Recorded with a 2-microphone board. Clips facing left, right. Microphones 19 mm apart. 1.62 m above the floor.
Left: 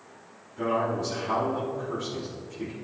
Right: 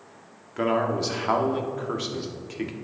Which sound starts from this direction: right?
A man speaking, at 0.6 s.